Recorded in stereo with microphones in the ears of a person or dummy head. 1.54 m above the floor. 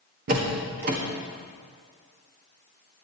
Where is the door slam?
45° right (ahead or behind), 1.7 m.